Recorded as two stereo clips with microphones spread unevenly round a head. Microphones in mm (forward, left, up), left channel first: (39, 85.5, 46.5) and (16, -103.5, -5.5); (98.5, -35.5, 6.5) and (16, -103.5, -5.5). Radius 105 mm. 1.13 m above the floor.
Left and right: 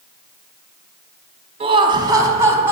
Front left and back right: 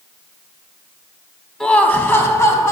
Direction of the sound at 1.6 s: 45° right.